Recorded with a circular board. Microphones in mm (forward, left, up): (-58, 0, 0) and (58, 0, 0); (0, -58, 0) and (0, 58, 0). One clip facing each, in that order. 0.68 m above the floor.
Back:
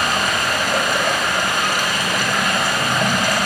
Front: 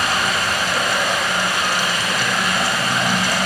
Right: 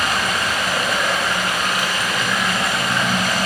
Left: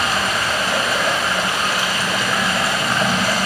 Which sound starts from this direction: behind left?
Running water, at 0.0 s.